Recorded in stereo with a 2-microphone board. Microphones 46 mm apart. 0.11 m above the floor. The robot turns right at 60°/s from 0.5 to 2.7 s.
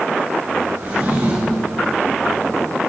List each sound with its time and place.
0.8 s a drawer: 125° right, 4 m; by 1.7 s 75° right, 4 m